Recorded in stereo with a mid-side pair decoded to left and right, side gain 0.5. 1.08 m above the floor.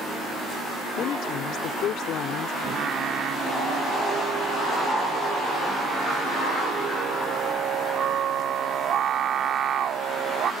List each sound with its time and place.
1.0 s a woman speaking: 70° left
2.6 s singing: 55° right